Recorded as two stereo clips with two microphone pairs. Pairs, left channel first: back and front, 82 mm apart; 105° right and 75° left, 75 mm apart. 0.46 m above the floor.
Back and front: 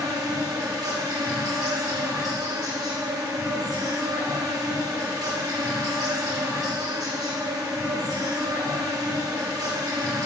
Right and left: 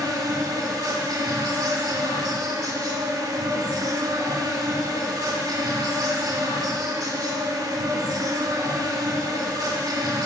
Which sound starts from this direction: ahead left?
An insect, at 0.0 s.